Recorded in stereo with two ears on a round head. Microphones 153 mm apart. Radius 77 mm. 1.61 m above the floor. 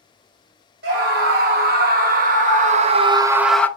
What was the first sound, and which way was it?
A scream, 65° right (ahead or behind).